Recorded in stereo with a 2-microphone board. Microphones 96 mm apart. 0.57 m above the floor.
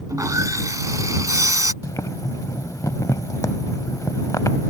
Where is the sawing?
40° right (ahead or behind).